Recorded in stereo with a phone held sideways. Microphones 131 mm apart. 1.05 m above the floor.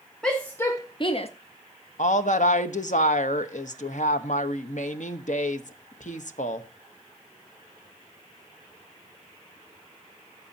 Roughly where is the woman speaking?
Left.